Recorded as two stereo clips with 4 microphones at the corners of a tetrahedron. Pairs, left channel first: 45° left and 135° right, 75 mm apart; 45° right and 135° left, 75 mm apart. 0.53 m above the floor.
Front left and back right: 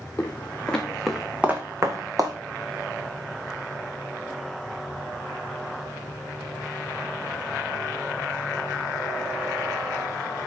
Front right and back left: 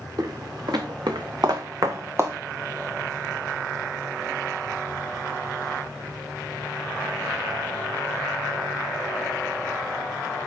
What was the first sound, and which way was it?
Footsteps, 110° left.